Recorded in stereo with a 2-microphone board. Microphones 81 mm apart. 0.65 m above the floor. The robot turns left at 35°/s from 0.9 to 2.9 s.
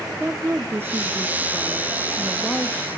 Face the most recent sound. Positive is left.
turn(degrees=145)